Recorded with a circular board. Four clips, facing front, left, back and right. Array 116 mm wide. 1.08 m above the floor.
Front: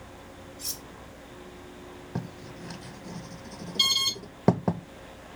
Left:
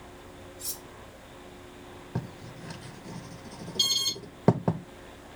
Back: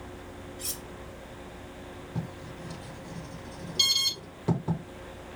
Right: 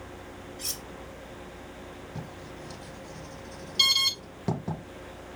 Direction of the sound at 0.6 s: 105° right.